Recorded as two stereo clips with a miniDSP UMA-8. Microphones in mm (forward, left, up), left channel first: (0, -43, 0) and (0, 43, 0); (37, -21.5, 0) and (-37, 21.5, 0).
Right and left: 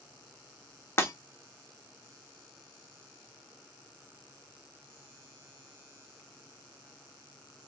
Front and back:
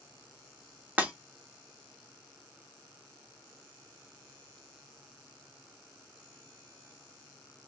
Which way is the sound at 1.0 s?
145° right.